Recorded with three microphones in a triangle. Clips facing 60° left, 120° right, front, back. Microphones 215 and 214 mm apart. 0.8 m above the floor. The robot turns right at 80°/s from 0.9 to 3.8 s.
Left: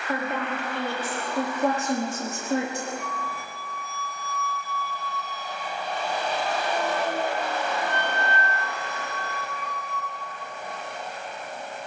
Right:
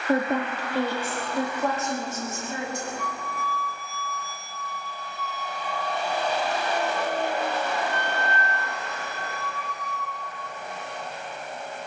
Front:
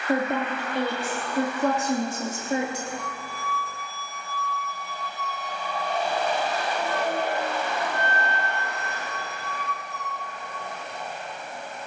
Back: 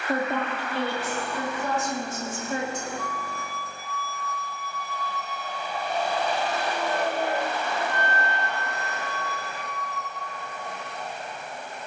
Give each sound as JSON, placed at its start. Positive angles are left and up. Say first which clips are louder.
{"t": 0.1, "sound": "a woman speaking", "louder": "right 5 dB, front 2 dB", "azimuth_deg": -70, "distance_m": 1.6}
{"t": 3.0, "sound": "a flute", "louder": "right 1 dB, back 2 dB", "azimuth_deg": 20, "distance_m": 5.5}